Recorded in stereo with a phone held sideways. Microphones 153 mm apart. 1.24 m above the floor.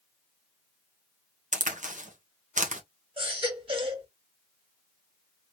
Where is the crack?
55° right (ahead or behind), 1.1 m.